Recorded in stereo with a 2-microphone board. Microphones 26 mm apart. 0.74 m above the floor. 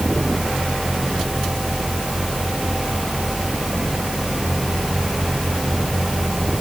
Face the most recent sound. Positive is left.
No sound to turn to.